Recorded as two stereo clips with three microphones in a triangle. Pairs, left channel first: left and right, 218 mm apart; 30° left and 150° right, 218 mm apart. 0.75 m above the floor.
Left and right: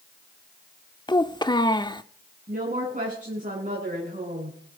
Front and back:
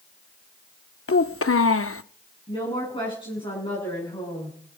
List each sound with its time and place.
1.1 s a child speaking: 20° left, 0.7 m
2.5 s a woman speaking: 35° right, 9 m